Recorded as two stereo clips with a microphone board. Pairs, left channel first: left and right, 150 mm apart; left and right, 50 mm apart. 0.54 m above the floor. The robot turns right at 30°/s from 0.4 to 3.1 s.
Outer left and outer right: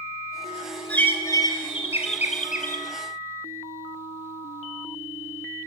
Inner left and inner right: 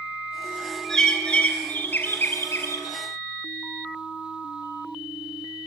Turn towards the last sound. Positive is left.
turn(degrees=75)